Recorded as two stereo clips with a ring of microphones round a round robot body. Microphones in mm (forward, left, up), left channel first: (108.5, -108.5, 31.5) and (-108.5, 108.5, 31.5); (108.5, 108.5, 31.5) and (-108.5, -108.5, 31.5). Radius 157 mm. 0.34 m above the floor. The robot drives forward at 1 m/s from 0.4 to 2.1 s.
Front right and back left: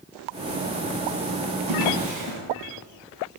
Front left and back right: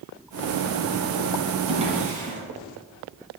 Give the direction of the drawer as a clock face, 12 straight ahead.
7 o'clock.